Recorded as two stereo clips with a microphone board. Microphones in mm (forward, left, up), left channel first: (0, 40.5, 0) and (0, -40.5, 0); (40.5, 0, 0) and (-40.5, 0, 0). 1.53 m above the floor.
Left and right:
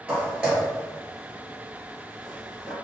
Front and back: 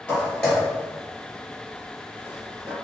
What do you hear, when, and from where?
0.1 s footsteps: 35° right, 1.6 m; by 2.7 s 170° right, 2.0 m